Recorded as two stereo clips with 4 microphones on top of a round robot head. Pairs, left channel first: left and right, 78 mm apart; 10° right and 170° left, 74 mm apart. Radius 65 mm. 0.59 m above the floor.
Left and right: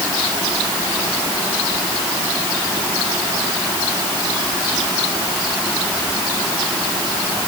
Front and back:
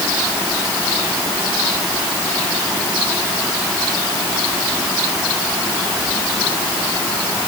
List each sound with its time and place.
Only background noise.